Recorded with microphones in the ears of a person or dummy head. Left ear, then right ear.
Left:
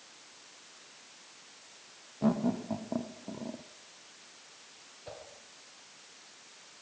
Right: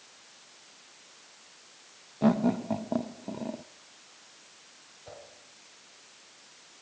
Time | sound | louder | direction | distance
2.2 | laughter | right 5 dB | 55° right (ahead or behind) | 0.5 m
5.1 | a whoosh | left 1 dB | 10° left (ahead or behind) | 5 m